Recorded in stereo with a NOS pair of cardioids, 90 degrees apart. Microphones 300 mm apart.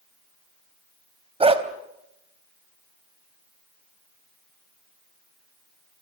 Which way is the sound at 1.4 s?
20° right.